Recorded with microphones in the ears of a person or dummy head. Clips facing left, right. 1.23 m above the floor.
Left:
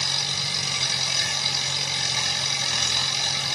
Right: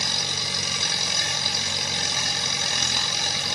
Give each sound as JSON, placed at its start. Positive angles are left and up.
{"t": 0.0, "sound": "an engine running", "side_deg": -50, "distance_m": 1.4}